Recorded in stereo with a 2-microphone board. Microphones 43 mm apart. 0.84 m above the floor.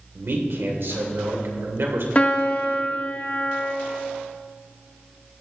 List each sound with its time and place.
0.1 s a man speaking: 65° right (ahead or behind), 2.5 m
2.1 s a piano: 30° left (ahead or behind), 1.1 m